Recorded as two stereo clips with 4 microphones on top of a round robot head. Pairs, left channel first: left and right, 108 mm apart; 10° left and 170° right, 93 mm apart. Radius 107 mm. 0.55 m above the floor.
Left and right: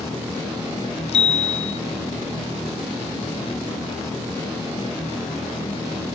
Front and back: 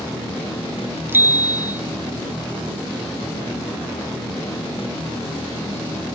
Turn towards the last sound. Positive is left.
turn(degrees=125)